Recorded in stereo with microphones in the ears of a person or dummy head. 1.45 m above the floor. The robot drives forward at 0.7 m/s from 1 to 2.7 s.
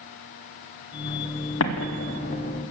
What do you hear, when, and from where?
1.6 s an explosion: 70° left (ahead or behind), 1.0 m; by 2.6 s 45° left (ahead or behind), 1.4 m